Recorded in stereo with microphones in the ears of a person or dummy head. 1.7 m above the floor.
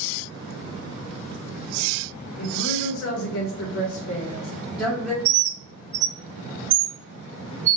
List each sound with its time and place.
2.4 s a woman speaking: 70° left (ahead or behind), 1.0 m; by 5.2 s 5° left (ahead or behind), 0.8 m
5.2 s a bird: 65° right (ahead or behind), 0.6 m